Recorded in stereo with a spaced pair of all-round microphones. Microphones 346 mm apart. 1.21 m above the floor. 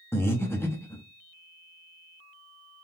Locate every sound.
0.1 s breathing: 5° left (ahead or behind), 0.8 m